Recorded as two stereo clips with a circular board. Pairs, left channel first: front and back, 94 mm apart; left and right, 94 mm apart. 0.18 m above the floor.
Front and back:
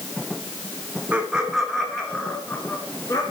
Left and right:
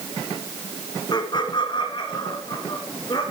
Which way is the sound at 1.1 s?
110° left.